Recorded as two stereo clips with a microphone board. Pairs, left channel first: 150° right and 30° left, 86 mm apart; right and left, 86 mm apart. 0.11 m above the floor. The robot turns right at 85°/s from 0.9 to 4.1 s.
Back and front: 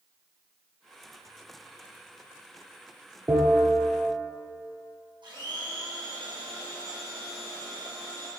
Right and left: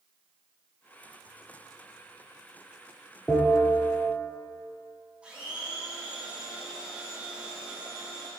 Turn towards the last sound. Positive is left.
turn(degrees=15)